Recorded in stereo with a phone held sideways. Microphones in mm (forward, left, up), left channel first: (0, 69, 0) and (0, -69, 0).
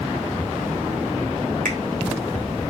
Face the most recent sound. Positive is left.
turn(degrees=-80)